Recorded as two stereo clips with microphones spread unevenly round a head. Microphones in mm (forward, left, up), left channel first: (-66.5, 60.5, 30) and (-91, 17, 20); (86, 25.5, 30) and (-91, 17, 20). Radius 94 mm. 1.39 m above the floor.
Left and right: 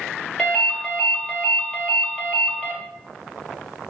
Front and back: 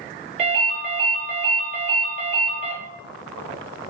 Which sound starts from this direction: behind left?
A ringtone, at 0.4 s.